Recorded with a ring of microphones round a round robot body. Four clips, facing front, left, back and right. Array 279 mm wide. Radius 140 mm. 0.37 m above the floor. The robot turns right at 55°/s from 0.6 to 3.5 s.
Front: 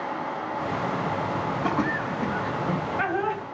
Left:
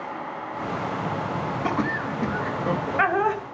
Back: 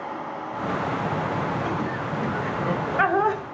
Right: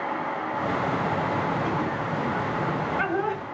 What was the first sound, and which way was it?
Laughter, 55° left.